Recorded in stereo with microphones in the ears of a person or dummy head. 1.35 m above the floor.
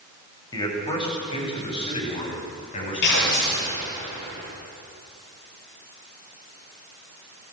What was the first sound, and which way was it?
A man speaking, 20° left (ahead or behind).